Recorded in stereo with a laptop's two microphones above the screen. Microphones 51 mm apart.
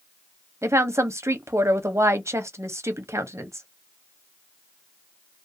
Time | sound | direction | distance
0.6 | a woman speaking | 60° right (ahead or behind) | 0.7 m